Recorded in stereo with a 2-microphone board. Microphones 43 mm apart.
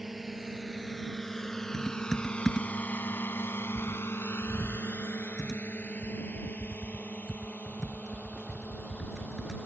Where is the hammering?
No hammering in this recording.